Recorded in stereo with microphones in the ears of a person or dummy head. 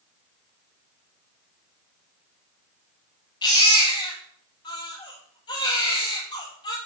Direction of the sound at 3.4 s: 25° left (ahead or behind).